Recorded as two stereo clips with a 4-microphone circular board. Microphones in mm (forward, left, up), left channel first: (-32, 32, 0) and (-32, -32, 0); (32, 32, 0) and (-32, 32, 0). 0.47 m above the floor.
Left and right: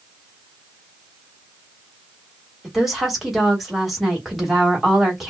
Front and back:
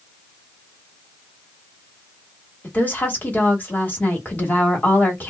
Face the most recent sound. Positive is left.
turn(degrees=-10)